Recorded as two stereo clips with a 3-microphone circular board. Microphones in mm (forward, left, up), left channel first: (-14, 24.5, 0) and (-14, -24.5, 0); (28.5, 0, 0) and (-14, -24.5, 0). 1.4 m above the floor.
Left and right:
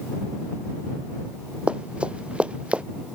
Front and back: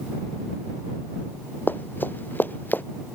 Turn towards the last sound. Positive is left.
turn(degrees=-20)